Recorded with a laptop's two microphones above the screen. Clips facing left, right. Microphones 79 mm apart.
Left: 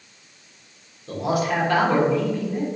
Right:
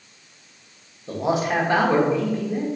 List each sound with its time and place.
1.1 s a man speaking: 25° right (ahead or behind), 1.2 m